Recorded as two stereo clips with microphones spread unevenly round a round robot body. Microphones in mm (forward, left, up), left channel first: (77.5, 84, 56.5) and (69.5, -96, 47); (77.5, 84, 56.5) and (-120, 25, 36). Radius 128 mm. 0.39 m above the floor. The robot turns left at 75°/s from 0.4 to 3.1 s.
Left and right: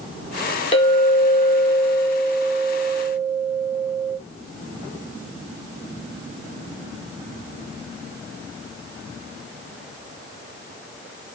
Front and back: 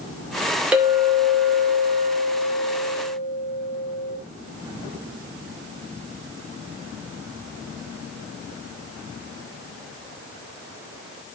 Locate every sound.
0.7 s a clink: 125° left, 0.8 m; by 4.2 s 50° right, 0.8 m